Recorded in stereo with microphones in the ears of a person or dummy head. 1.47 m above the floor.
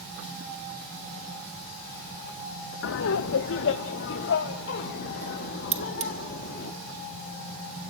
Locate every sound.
2.8 s laughter: 65° left (ahead or behind), 0.8 m; by 6.7 s 55° left (ahead or behind), 3 m
5.7 s cutlery clinking: 30° right (ahead or behind), 1.3 m